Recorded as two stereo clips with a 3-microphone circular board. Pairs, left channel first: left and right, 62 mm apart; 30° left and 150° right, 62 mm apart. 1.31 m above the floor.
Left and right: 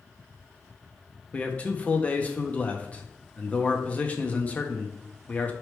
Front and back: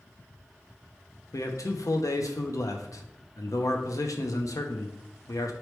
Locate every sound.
1.3 s a man speaking: 25° left, 0.6 m